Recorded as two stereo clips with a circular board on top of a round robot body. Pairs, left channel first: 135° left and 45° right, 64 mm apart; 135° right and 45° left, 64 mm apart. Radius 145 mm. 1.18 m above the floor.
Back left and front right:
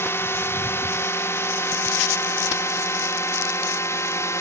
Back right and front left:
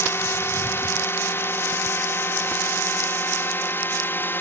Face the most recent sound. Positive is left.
turn(degrees=170)